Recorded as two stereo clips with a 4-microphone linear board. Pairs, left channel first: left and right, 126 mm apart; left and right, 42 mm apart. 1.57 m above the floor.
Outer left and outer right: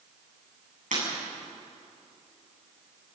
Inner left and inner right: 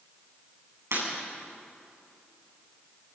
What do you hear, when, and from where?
0.9 s breaking glass: 80° right, 9.5 m